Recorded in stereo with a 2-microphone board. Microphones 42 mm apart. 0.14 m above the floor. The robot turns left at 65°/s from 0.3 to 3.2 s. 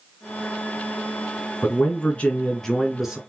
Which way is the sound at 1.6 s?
80° left.